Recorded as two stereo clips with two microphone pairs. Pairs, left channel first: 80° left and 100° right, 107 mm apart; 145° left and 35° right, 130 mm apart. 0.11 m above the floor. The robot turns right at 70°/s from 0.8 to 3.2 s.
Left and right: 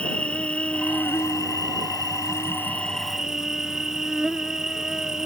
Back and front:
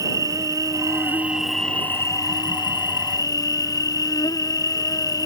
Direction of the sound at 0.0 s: 10° left.